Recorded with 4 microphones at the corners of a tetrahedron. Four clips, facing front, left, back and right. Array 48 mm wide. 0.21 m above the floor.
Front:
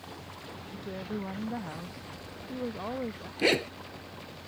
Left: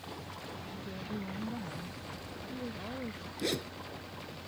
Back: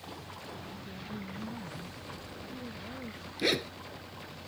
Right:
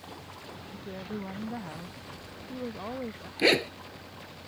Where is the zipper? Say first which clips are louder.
Right 12 dB, front 4 dB; 70° right.